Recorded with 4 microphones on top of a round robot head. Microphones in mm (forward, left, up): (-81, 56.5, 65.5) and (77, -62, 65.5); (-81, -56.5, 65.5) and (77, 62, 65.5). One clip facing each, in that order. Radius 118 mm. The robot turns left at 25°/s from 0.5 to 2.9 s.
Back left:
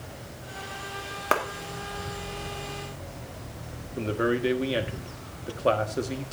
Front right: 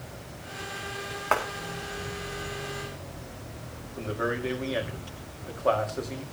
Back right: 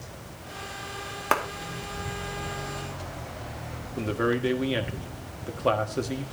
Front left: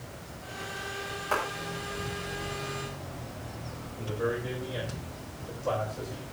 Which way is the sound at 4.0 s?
160° right.